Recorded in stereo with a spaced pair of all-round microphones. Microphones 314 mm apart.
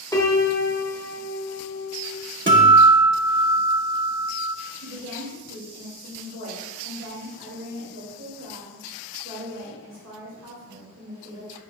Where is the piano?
10° left (ahead or behind), 0.9 m.